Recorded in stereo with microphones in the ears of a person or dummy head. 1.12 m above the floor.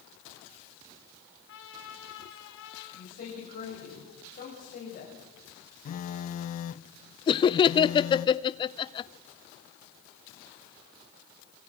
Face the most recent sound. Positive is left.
turn(degrees=25)  # may be behind; listen again after turning